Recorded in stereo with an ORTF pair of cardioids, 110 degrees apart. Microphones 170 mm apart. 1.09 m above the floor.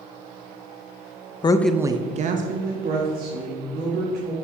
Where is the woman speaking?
30° left, 0.6 m; by 4.3 s 75° right, 3 m.